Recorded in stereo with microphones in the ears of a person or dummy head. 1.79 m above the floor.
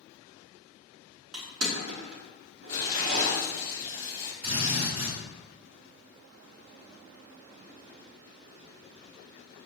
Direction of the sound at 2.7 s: 25° left (ahead or behind).